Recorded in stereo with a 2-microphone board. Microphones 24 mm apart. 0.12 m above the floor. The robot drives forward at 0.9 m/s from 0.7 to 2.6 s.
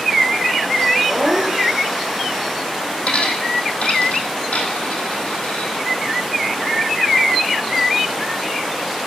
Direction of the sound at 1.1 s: 50° right (ahead or behind).